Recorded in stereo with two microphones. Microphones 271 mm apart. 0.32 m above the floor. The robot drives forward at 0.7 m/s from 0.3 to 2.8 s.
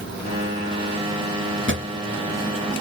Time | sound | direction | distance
1.7 | a drawer | 45° right (ahead or behind) | 0.8 m